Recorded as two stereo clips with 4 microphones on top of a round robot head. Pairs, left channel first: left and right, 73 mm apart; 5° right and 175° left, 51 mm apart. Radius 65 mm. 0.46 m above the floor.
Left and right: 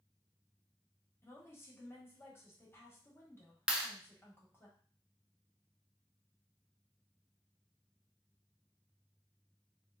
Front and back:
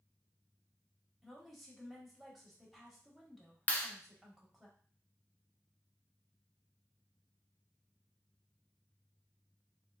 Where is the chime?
No chime in this recording.